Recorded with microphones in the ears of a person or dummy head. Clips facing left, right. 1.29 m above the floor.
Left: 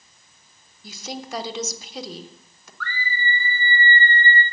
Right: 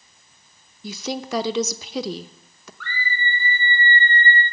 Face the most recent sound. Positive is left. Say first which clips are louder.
# even
turn(degrees=-25)  # may be behind; listen again after turning